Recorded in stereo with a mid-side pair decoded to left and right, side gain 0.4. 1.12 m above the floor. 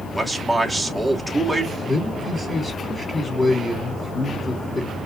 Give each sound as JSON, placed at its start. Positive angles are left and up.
{"t": 0.1, "sound": "a man speaking", "azimuth_deg": -5, "distance_m": 2.5}
{"t": 1.9, "sound": "a man speaking", "azimuth_deg": 15, "distance_m": 3.0}